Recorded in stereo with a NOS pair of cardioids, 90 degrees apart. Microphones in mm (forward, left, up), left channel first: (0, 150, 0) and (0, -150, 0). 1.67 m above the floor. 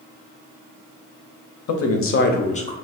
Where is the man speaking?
60° left, 1.0 m; by 2.8 s 15° left, 1.0 m.